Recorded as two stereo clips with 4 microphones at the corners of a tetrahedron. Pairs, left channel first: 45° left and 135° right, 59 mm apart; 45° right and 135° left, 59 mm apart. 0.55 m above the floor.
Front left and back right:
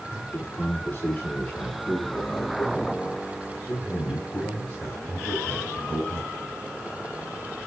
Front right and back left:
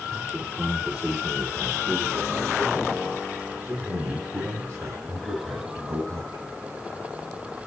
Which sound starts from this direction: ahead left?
A man speaking, at 0.1 s.